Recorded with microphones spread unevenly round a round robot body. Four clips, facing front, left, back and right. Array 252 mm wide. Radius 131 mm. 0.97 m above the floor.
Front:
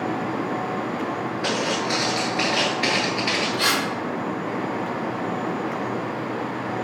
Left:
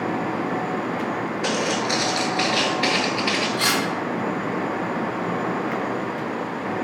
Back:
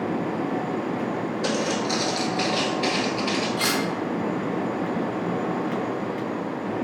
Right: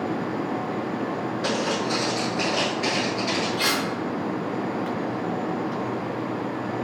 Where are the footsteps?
155° right, 0.9 m; by 3.5 s 50° left, 1.2 m.